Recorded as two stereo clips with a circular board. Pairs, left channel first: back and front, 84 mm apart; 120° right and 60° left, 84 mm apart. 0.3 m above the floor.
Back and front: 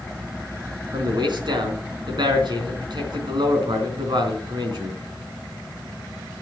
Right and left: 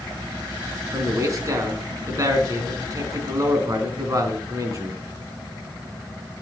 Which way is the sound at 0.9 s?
15° left.